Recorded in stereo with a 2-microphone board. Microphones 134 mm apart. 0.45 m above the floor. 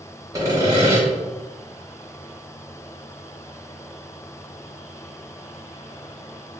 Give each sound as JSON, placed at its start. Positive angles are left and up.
{"t": 0.3, "sound": "sawing", "side_deg": -25, "distance_m": 0.9}